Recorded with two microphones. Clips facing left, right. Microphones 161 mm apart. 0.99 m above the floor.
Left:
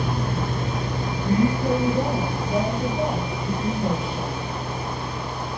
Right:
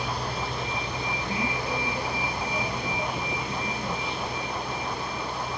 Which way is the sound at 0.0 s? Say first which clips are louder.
Left 5 dB; 50° left (ahead or behind).